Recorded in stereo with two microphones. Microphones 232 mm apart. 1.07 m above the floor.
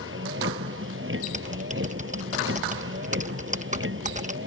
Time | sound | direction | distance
0.0 | a vehicle | 60° right (ahead or behind) | ?
1.2 | typing on a keyboard | 30° right (ahead or behind) | ?